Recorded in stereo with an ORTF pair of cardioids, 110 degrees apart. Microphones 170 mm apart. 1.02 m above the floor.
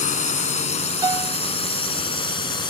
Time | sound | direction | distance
0.0 | a drone | 45° left | ?
1.0 | a piano | 25° right | ?